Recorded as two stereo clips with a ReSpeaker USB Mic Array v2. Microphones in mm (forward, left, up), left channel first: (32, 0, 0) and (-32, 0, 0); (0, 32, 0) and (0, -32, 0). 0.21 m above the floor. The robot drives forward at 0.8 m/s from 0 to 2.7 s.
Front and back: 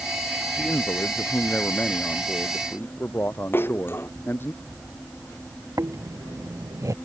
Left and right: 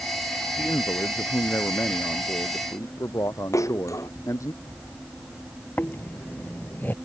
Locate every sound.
0.6 s a man speaking: 45° left; by 4.5 s 55° left
3.5 s a splash: 55° left
5.8 s snoring: 150° left